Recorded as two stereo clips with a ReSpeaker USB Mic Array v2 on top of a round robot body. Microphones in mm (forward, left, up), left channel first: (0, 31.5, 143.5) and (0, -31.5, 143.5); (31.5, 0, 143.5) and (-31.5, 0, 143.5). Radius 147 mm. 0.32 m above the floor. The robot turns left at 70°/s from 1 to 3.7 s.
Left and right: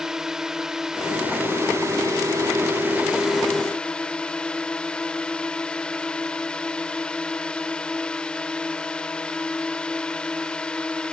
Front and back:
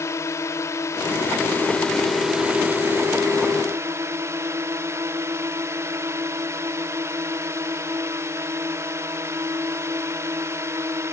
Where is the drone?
10° right; by 11.1 s 160° left.